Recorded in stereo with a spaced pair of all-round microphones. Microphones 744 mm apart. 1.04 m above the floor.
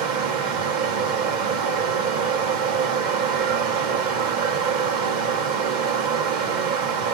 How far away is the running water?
About 1.0 m.